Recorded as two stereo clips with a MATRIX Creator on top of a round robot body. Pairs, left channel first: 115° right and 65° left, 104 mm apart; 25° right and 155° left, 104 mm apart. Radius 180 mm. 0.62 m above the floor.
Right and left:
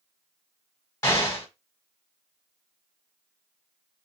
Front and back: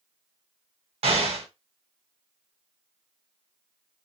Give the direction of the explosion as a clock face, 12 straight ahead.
6 o'clock.